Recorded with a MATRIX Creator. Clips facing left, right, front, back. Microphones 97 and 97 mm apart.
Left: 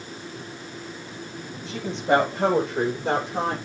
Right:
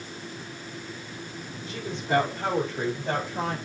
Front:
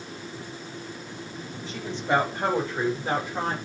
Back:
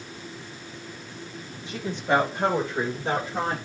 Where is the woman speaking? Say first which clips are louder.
Left 6 dB, back 2 dB; 105° left, 9.5 m; by 3.6 s 115° left, 8 m.